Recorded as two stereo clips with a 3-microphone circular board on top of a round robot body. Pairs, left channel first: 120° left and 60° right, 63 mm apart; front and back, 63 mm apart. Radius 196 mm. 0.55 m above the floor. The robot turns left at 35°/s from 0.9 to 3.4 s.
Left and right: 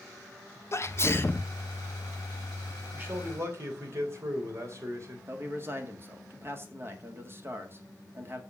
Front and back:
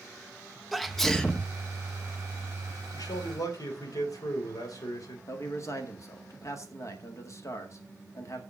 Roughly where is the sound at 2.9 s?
Ahead.